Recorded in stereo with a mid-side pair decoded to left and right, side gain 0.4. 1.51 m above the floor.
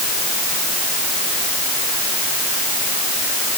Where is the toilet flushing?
No toilet flushing in this recording.